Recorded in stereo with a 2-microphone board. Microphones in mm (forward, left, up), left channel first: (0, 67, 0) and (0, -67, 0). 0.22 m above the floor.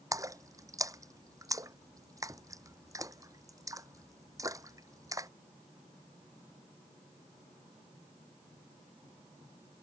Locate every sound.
0.1 s a splash: 25° right (ahead or behind)